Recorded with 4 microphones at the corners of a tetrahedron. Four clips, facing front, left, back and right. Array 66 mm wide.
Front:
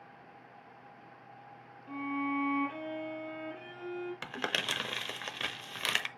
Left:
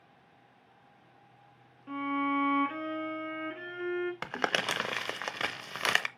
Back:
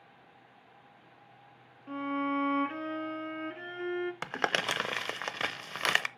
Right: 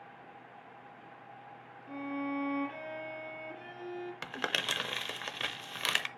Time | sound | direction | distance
1.9 | a violin | 130° left | 1.8 m
4.2 | crumpling | 140° left | 0.7 m